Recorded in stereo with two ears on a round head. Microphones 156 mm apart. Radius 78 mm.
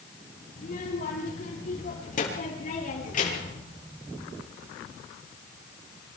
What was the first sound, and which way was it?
A child speaking, 50° left (ahead or behind).